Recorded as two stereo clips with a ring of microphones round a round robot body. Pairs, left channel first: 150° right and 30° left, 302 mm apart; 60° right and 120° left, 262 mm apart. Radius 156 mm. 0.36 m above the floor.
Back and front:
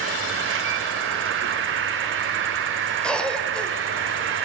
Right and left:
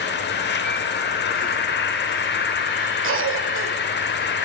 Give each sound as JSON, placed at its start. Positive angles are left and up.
{"t": 0.0, "sound": "an insect", "azimuth_deg": -15, "distance_m": 0.8}
{"t": 3.0, "sound": "a cough", "azimuth_deg": 125, "distance_m": 1.3}